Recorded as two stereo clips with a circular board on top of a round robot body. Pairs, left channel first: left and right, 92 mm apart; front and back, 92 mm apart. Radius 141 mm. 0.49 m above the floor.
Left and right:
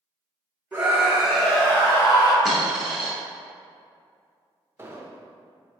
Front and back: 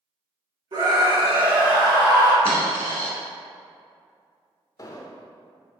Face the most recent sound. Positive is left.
turn(degrees=-35)